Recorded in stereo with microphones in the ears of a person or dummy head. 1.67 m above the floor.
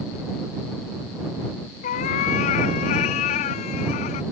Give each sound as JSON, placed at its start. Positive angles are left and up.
{"t": 1.8, "sound": "a cat meowing", "side_deg": 40}